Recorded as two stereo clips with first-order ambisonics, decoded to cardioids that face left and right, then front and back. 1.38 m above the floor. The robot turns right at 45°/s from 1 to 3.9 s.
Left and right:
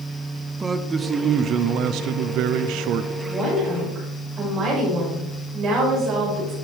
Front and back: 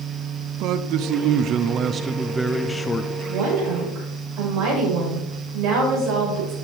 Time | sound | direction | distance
0.6 | a man speaking | 160° right | 0.7 m
3.3 | a woman speaking | 175° right | 5.5 m